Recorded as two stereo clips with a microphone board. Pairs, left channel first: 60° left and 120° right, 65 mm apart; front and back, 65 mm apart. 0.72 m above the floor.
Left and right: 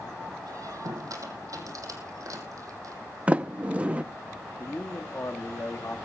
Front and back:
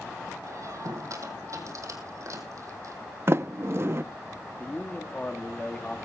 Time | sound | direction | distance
0.5 | a squeak | 145° right | 2.5 m
3.3 | a sliding door | straight behind | 0.6 m
4.6 | a man speaking | 60° left | 1.3 m